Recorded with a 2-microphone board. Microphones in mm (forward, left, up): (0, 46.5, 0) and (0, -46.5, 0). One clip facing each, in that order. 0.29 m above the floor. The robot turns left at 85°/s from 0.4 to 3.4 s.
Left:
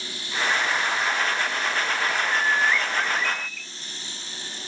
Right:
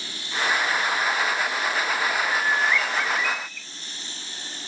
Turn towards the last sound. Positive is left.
turn(degrees=105)